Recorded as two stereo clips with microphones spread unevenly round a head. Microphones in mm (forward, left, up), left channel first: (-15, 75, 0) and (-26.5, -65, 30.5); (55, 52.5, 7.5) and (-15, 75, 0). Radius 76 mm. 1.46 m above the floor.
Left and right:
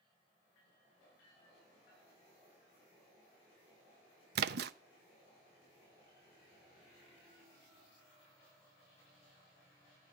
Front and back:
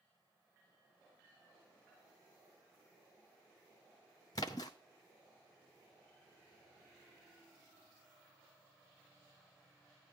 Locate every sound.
4.3 s a splash: 75° right, 0.5 m